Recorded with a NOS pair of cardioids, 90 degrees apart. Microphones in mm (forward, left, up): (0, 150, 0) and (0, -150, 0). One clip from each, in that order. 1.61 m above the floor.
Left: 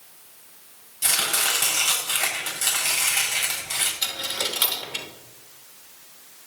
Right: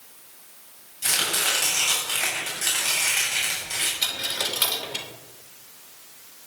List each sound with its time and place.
1.0 s chopping: 50° left, 8 m
4.0 s a dropped coin: 15° left, 3 m